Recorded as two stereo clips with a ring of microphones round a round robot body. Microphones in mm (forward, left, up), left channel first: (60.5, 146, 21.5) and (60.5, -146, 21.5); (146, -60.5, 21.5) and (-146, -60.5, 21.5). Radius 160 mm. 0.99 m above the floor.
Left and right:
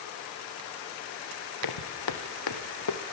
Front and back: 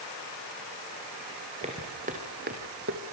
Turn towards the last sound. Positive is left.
turn(degrees=125)